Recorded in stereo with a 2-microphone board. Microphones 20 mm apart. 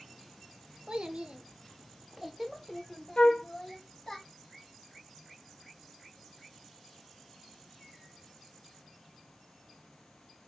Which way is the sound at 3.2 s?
75° left (ahead or behind).